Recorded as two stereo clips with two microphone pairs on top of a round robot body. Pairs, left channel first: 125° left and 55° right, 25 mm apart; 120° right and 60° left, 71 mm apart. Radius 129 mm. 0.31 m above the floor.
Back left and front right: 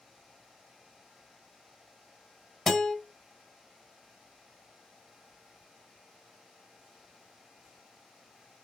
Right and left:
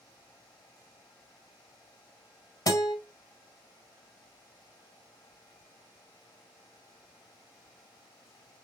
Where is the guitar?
155° right, 2 m.